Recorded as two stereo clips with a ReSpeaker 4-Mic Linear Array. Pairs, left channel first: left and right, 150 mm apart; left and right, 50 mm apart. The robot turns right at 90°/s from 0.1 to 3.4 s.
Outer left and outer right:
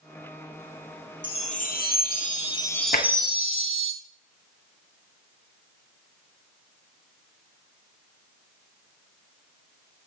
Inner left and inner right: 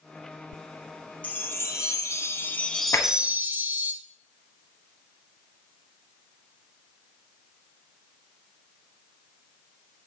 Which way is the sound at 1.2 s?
30° left.